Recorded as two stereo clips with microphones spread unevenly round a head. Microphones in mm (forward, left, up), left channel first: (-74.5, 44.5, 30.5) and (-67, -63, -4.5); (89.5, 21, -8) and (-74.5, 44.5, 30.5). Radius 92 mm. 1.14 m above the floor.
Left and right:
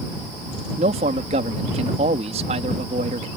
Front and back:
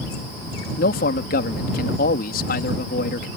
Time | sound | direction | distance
0.8 | a man speaking | 50° right | ?